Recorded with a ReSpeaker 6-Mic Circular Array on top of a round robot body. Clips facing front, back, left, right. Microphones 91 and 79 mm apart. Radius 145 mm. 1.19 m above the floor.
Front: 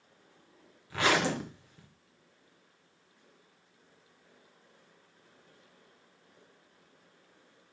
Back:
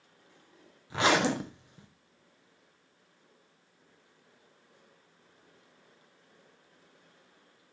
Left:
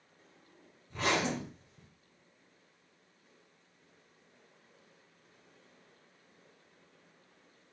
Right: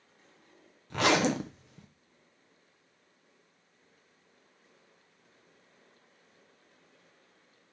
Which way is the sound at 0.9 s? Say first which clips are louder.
Back 2 dB, right 6 dB; 110° right.